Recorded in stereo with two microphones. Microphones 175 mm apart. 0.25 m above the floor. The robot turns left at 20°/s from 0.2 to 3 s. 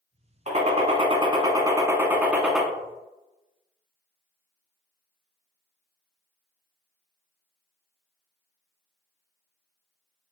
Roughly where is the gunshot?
Behind right.